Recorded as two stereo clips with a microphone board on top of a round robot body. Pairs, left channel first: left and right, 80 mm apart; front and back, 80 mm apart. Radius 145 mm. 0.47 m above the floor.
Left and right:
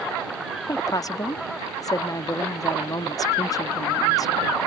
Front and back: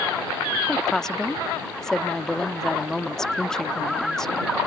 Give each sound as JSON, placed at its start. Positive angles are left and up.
{"t": 0.7, "sound": "a woman speaking", "azimuth_deg": 80}